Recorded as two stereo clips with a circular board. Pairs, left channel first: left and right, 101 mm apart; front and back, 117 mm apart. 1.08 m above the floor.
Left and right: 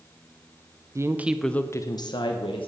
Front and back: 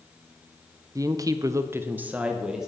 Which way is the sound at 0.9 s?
130° right.